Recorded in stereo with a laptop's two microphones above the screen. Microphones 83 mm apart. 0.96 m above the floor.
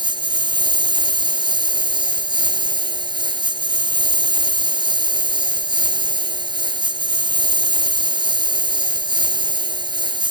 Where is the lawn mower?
70° right (ahead or behind).